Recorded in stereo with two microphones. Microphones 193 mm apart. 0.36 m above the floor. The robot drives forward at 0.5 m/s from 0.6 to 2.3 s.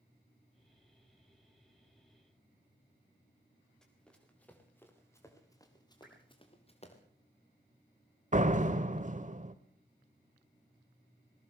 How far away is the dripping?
About 7.5 m.